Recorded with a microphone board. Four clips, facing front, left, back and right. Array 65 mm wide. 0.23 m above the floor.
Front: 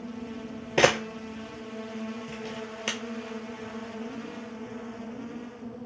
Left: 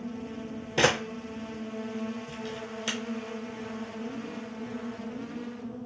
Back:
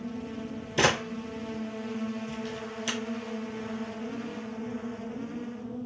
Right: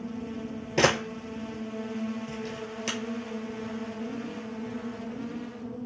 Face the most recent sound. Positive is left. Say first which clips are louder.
# right 1 dB, front 3 dB
turn(degrees=-5)